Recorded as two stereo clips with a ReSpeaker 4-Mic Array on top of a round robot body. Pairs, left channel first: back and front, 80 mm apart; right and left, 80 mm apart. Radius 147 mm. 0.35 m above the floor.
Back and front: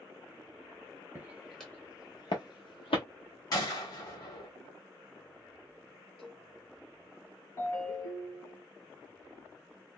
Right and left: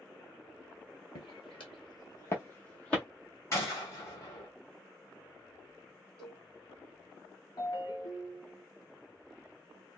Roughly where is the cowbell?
Behind.